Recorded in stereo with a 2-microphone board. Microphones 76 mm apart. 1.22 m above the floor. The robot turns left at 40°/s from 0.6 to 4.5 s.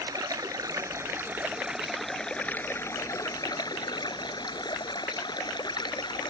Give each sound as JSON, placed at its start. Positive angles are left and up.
{"t": 0.0, "sound": "running water", "azimuth_deg": -125}